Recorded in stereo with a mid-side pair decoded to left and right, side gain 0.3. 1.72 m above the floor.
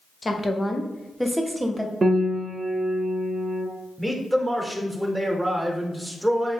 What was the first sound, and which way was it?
A woman speaking, 35° left.